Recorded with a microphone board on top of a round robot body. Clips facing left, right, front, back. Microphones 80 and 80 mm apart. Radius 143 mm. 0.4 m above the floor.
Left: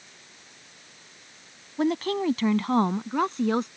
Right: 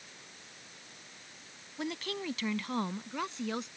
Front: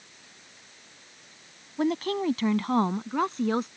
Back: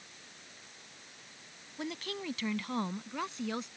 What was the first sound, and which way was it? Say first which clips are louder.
A woman speaking: left 13 dB, front 13 dB; 45° left.